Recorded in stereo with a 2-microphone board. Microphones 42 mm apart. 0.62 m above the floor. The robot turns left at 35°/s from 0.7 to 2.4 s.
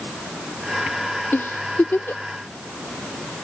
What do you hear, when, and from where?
1.3 s a giggle: 60° left (ahead or behind); by 2.2 s 65° left (ahead or behind)